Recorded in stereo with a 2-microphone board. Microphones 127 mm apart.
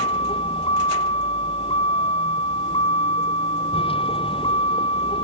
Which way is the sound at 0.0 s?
45° left (ahead or behind).